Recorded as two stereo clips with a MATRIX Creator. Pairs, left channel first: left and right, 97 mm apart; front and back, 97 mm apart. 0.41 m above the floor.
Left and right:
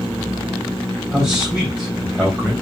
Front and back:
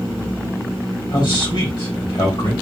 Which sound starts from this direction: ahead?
A man speaking, at 1.1 s.